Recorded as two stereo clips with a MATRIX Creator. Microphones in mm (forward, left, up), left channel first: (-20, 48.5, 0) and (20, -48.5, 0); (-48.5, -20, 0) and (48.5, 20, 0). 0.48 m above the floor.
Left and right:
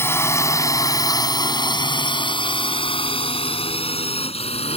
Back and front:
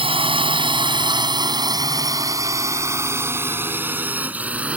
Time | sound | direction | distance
0.0 | a drone | 50° left | ?